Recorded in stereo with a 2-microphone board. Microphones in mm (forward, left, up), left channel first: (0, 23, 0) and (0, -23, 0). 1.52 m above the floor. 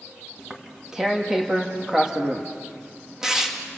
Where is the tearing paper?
10° right (ahead or behind), 2 m.